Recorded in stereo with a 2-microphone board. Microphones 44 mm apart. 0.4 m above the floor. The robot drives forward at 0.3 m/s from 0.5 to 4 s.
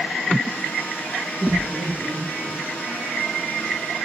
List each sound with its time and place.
1.4 s laughter: centre (ahead or behind), 4 m